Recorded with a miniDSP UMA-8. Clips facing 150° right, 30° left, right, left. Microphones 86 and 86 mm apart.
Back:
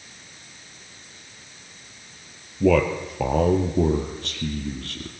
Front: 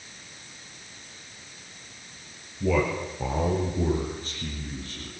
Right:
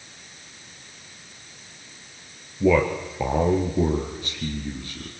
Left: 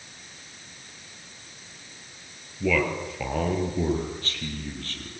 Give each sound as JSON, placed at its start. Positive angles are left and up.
{"t": 2.6, "sound": "a man speaking", "azimuth_deg": -155, "distance_m": 4.0}